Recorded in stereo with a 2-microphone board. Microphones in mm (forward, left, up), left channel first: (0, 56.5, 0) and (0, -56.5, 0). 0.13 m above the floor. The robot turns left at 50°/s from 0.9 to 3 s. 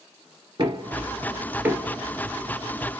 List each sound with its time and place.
0.6 s knocking: 40° right (ahead or behind), 2 m; by 1.9 s 5° right (ahead or behind), 2 m